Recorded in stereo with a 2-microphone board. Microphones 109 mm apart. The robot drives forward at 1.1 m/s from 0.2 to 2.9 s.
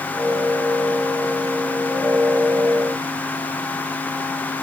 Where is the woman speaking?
No woman speaking in this recording.